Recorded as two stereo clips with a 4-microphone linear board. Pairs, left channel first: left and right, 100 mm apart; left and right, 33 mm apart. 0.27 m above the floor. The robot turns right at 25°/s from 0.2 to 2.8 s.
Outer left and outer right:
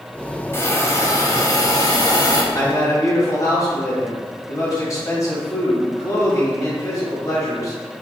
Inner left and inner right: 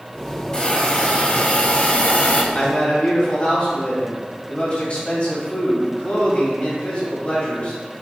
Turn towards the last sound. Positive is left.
turn(degrees=35)  # may be behind; listen again after turning